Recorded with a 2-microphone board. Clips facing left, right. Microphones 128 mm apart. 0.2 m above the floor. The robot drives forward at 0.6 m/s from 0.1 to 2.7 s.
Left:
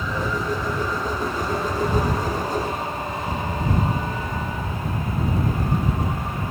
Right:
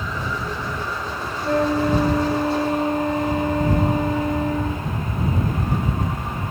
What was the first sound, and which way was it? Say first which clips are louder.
A flute: right 9 dB; 70° right (ahead or behind).